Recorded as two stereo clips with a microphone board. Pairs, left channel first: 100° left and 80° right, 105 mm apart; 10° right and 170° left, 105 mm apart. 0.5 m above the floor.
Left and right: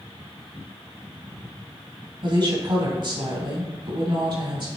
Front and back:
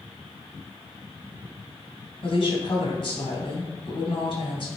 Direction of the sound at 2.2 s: 45° right.